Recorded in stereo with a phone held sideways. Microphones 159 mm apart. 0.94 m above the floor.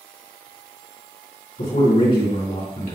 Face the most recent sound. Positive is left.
turn(degrees=55)  # may be behind; listen again after turning